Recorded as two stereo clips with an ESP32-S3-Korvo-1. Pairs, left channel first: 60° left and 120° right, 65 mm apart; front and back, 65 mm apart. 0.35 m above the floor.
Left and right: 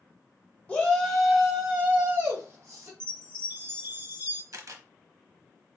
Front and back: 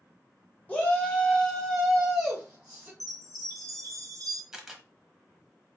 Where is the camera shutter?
100° right, 0.7 m.